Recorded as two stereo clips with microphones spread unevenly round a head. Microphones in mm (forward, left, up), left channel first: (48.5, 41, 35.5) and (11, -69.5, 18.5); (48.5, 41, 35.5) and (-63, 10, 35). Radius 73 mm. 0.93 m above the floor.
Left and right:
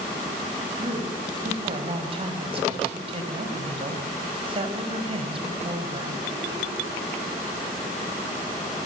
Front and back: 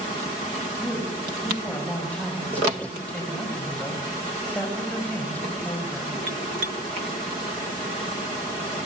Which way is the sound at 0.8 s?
65° right.